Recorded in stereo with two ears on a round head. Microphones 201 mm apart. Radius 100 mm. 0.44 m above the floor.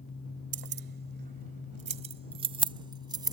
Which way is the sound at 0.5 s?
55° right (ahead or behind).